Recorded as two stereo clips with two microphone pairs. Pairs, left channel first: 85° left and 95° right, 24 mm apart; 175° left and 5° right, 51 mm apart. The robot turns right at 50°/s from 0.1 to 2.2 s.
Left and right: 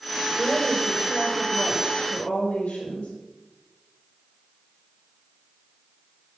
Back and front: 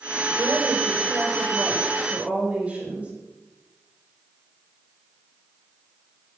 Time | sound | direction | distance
0.4 | a woman speaking | 30° right | 6 m